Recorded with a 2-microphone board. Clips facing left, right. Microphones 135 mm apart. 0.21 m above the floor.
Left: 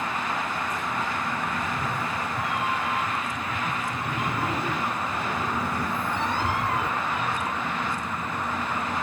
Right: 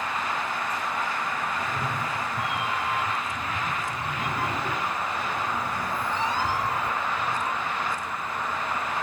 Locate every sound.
1.6 s a cat meowing: 15° right (ahead or behind), 3 m; by 7.5 s 75° left (ahead or behind), 2.5 m